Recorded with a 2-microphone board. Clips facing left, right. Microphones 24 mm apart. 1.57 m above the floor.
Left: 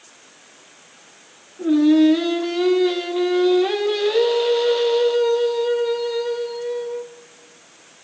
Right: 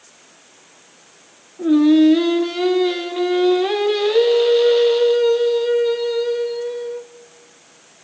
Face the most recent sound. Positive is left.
turn(degrees=-10)  # may be behind; listen again after turning